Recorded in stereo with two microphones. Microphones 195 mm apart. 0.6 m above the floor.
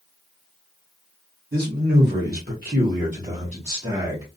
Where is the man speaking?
55° right (ahead or behind), 1.3 m; by 4.3 s 20° right (ahead or behind), 1.1 m.